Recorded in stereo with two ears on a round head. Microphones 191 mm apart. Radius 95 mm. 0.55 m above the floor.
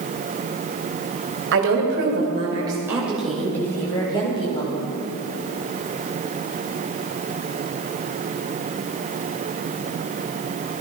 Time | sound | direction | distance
1.5 | a woman speaking | 55° right (ahead or behind) | 3 m